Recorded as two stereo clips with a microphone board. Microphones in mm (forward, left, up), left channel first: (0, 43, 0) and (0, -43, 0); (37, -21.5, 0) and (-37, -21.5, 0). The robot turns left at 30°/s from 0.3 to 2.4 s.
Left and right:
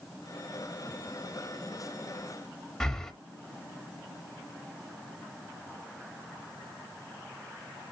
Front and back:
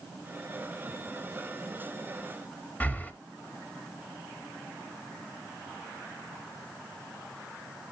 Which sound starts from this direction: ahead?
Breathing, at 2.8 s.